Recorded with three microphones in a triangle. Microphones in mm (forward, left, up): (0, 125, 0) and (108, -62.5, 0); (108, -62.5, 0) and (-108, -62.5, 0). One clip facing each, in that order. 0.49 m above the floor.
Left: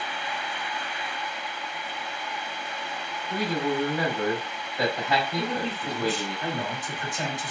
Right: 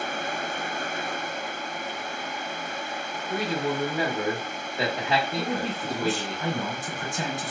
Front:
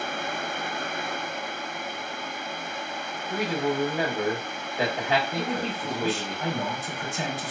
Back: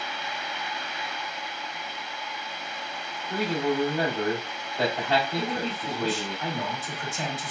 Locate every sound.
3.3 s a man speaking: 55° right, 1.0 m
5.4 s a man speaking: 45° right, 1.5 m